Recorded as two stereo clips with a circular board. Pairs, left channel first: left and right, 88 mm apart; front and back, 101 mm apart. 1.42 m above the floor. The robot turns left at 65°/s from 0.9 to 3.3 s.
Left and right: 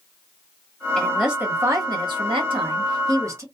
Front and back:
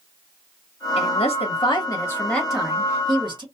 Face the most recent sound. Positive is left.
turn(degrees=-145)